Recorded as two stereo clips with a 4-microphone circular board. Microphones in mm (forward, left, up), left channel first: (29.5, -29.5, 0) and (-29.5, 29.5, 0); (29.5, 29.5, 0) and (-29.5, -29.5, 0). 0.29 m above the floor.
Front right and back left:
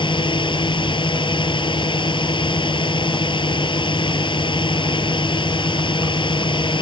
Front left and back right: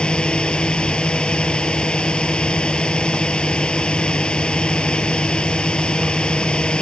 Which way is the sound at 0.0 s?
35° right.